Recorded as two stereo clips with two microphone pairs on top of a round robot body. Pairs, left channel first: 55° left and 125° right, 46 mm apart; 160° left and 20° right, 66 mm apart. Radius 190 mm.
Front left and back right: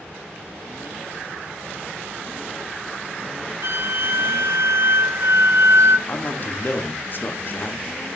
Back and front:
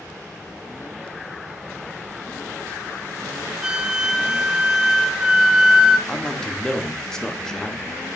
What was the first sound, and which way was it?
A flute, 105° right.